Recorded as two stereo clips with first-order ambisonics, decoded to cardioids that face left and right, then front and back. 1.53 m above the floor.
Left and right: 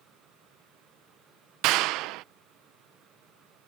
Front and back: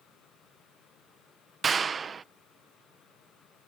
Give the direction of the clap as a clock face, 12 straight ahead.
4 o'clock.